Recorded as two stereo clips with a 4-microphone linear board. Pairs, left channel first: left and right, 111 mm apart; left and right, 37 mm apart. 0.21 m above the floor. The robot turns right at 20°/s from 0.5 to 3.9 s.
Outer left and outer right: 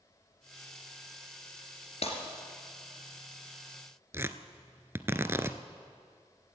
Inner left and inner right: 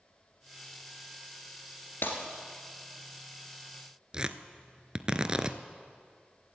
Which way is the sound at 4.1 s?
25° right (ahead or behind).